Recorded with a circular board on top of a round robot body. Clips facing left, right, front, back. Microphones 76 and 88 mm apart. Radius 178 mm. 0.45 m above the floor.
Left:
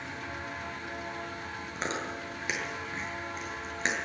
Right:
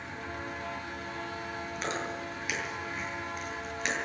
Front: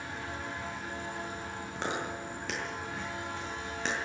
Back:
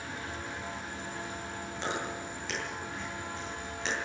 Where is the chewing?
35° left, 8.5 m.